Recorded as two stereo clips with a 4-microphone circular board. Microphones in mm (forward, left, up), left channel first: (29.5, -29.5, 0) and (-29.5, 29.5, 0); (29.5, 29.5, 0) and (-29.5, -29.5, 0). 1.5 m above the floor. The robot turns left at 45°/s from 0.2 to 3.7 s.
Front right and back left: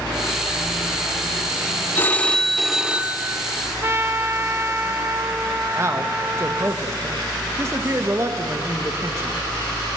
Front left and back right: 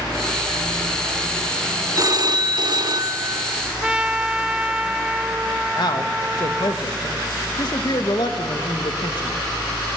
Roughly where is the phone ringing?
Right.